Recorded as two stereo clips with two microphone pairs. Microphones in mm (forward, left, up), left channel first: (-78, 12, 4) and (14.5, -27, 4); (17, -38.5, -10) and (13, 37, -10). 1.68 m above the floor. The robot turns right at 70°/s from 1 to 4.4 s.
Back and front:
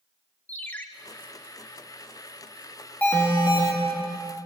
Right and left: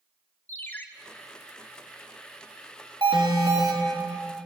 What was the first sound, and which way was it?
A ringtone, 140° right.